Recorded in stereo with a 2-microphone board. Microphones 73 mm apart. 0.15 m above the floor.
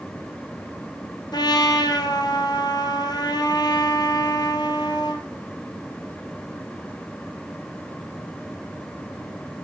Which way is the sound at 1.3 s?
70° left (ahead or behind).